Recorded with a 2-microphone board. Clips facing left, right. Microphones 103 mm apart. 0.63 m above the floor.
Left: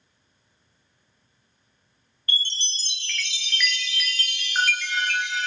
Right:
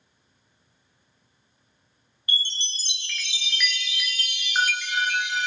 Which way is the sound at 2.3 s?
15° right (ahead or behind).